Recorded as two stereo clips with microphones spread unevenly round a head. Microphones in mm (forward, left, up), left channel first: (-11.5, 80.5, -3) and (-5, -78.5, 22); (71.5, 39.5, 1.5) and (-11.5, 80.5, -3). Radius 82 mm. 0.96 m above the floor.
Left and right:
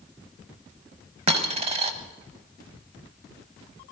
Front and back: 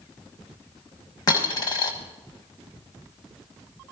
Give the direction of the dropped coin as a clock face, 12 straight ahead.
2 o'clock.